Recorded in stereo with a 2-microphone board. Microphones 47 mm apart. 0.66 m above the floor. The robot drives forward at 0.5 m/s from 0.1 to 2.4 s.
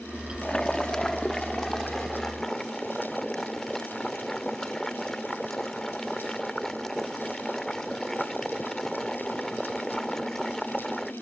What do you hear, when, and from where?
0.4 s boiling: 20° left (ahead or behind); by 11.1 s 10° left (ahead or behind)